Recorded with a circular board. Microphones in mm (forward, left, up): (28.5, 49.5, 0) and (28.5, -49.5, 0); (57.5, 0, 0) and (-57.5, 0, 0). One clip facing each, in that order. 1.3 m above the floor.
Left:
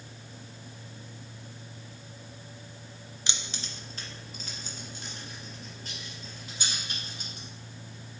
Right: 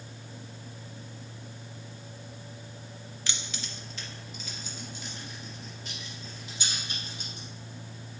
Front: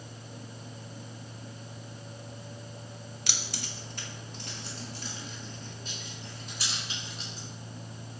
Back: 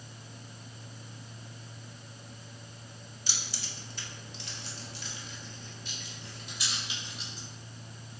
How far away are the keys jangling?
About 0.6 m.